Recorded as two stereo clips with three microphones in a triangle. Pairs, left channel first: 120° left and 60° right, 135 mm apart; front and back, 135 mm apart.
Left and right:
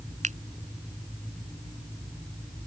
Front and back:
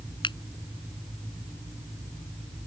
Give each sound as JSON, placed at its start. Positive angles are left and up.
{"t": 0.2, "sound": "a finger snap", "azimuth_deg": -50}